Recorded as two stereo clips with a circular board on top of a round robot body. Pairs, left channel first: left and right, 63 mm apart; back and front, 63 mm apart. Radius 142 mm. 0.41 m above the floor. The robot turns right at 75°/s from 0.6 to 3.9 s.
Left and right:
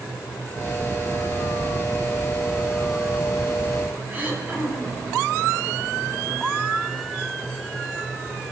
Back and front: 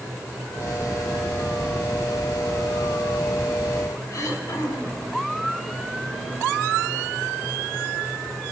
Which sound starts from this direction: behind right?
Throat clearing, at 4.1 s.